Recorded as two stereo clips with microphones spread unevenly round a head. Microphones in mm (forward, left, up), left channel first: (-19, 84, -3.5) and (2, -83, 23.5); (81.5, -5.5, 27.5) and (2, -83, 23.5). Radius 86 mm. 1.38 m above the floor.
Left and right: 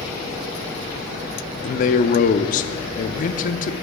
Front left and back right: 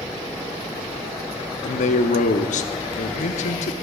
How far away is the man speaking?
About 0.6 m.